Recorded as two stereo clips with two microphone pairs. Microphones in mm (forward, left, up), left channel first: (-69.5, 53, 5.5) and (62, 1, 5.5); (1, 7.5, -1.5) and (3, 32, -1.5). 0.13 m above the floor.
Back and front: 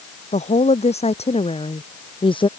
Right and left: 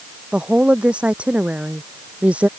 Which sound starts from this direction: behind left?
A woman speaking, at 0.3 s.